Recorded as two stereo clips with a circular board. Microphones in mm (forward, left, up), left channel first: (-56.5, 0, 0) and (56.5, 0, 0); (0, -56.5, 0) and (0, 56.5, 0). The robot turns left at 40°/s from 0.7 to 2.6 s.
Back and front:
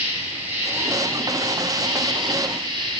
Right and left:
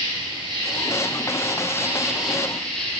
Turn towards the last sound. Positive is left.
turn(degrees=-10)